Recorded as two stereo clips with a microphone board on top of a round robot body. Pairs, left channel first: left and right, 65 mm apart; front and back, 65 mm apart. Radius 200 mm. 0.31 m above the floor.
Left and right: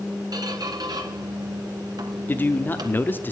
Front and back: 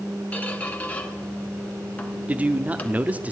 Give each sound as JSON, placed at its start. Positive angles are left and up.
{"t": 0.3, "sound": "a squeak", "azimuth_deg": -70, "distance_m": 1.5}
{"t": 2.3, "sound": "a man speaking", "azimuth_deg": 125, "distance_m": 1.0}